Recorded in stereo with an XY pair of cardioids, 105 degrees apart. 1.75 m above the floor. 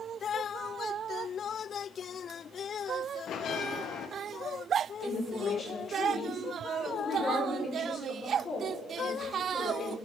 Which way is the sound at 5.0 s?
40° left.